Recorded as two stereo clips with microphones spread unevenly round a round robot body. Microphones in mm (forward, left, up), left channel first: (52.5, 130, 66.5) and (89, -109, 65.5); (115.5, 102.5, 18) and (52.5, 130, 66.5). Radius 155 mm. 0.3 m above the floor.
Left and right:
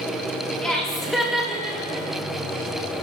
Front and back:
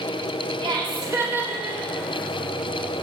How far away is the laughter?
About 1.6 m.